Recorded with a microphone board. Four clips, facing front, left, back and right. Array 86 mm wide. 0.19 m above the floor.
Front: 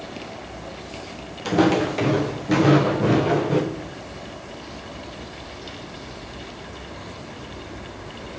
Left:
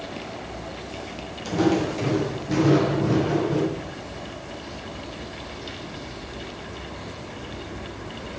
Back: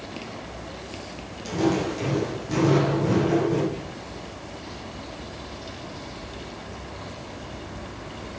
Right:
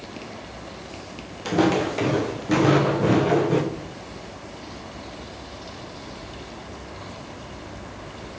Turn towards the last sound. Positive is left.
turn(degrees=175)